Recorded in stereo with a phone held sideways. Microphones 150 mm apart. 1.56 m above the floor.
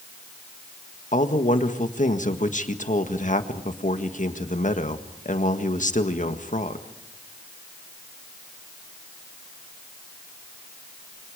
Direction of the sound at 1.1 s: 55° left (ahead or behind).